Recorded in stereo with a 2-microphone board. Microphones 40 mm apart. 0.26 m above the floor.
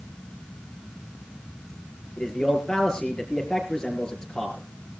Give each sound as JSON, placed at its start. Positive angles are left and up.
{"t": 2.2, "sound": "a man speaking", "side_deg": 20, "distance_m": 5.0}